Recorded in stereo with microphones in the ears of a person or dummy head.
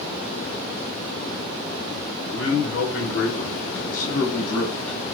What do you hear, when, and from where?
2.3 s a man speaking: 65° left (ahead or behind), 1.8 m; by 5.0 s 5° left (ahead or behind), 1.0 m